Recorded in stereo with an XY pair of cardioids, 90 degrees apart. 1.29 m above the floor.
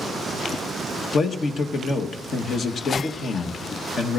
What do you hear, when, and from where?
1.1 s a man speaking: 65° left, 1.4 m